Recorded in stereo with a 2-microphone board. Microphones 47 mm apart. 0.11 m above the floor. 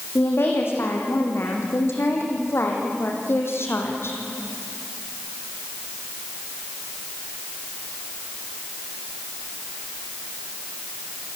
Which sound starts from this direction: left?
A woman speaking, at 0.1 s.